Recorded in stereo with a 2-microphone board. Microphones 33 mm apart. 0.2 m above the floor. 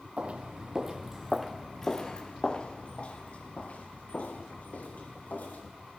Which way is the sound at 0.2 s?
40° right (ahead or behind).